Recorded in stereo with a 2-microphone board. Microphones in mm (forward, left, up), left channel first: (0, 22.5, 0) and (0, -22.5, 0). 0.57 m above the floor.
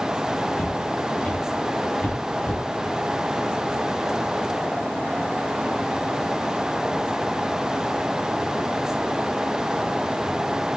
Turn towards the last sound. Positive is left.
turn(degrees=30)  # may be behind; listen again after turning